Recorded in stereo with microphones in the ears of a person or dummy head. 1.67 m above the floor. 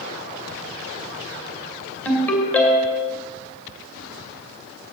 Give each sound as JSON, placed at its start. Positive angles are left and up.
{"t": 2.0, "sound": "a ringtone", "side_deg": 10, "distance_m": 2.5}